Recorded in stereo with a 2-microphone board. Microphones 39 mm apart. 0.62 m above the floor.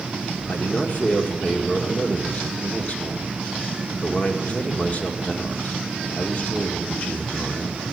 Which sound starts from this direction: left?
A man speaking, at 0.5 s.